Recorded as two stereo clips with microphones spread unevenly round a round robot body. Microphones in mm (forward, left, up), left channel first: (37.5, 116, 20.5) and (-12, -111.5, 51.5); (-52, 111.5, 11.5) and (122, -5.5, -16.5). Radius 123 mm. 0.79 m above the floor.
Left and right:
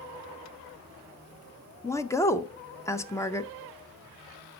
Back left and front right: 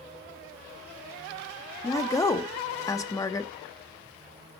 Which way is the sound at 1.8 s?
75° left.